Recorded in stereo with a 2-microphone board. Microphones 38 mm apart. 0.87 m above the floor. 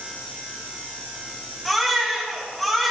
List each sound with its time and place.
1.6 s a baby crying: centre (ahead or behind), 5 m